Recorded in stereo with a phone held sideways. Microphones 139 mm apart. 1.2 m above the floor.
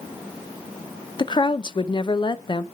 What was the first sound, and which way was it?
A woman speaking, 35° left (ahead or behind).